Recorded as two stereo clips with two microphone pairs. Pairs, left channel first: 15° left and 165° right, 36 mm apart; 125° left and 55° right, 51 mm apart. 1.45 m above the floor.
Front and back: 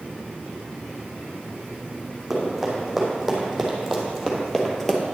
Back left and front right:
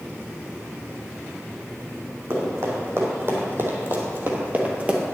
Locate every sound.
2.3 s running footsteps: 80° right, 4 m; by 5.0 s 40° right, 1.6 m